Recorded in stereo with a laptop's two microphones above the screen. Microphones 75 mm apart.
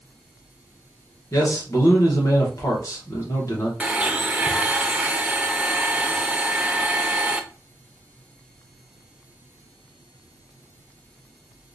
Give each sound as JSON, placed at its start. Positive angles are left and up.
{"t": 1.3, "sound": "a man speaking", "side_deg": 45, "distance_m": 1.1}
{"t": 3.8, "sound": "a blender", "side_deg": -15, "distance_m": 0.6}